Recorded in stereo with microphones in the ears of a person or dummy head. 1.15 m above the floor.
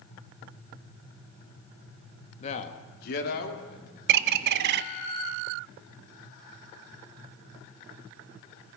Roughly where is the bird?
Right.